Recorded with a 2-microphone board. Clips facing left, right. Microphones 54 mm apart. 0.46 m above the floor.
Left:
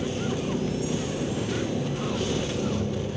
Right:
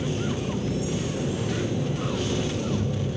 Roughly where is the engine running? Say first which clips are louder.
Even; left.